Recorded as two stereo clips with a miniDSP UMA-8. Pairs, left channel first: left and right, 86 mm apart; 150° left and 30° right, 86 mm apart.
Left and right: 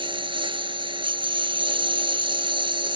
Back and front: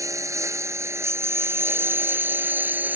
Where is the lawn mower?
85° right; by 3.0 s 100° right.